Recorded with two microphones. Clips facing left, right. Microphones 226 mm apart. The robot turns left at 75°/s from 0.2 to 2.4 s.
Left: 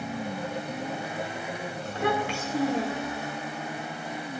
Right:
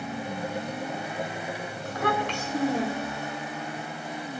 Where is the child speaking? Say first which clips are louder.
Even; 45° left, 2 m; by 3.3 s straight ahead, 2 m.